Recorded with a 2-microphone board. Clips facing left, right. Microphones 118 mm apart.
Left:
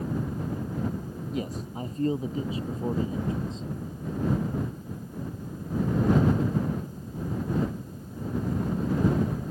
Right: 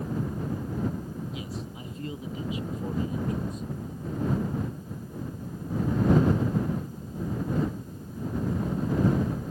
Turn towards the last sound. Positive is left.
turn(degrees=25)  # may be behind; listen again after turning